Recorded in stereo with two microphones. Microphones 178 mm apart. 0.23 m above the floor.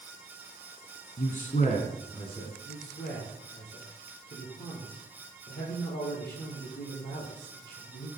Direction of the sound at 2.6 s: 70° left (ahead or behind).